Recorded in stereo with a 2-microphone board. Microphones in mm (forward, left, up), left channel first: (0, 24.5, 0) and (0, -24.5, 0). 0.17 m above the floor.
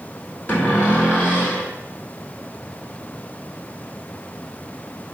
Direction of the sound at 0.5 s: 35° left (ahead or behind).